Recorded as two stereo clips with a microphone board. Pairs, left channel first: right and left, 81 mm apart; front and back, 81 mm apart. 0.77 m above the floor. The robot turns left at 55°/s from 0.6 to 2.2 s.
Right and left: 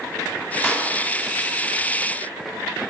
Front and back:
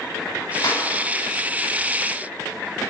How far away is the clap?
About 4.5 m.